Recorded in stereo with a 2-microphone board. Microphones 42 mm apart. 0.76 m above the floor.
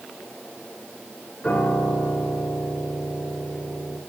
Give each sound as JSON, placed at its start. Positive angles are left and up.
{"t": 1.4, "sound": "a piano", "side_deg": 30, "distance_m": 8.0}